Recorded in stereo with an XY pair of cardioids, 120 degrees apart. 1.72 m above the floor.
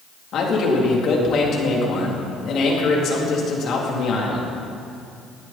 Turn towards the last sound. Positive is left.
turn(degrees=60)